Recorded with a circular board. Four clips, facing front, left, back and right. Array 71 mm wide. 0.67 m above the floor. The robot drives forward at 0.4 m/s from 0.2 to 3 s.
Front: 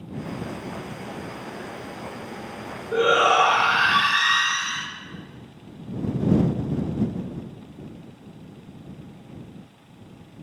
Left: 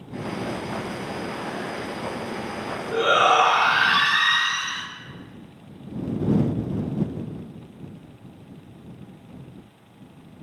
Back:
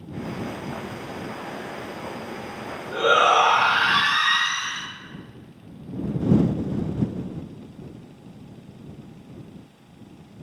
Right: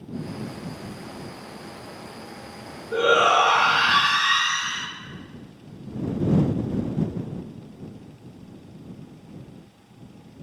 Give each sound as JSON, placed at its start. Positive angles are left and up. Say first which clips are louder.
{"t": 2.9, "sound": "a shout", "louder": "even, even", "azimuth_deg": 125, "distance_m": 1.4}